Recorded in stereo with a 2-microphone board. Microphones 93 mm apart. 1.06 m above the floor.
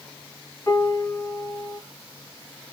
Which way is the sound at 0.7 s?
30° left (ahead or behind).